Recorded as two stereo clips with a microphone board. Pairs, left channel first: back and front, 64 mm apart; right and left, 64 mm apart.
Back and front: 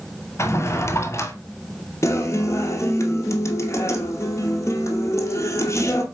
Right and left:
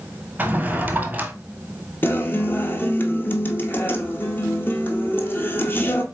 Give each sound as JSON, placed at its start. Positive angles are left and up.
{"t": 0.4, "sound": "a drawer", "azimuth_deg": 150, "distance_m": 0.7}
{"t": 2.0, "sound": "a guitar", "azimuth_deg": -145, "distance_m": 0.8}